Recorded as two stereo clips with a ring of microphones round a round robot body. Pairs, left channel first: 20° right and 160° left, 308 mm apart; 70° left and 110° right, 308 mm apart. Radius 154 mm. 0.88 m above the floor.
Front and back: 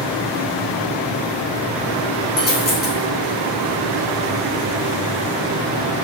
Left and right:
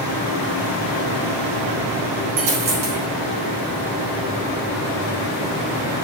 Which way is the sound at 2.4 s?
85° right.